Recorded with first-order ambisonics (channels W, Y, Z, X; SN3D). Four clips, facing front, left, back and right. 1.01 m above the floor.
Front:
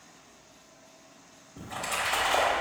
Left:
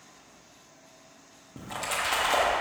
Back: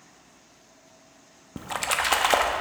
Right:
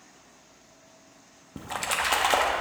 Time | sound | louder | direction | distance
1.6 | a splash | right 3 dB, back 5 dB | 160° right | 0.7 m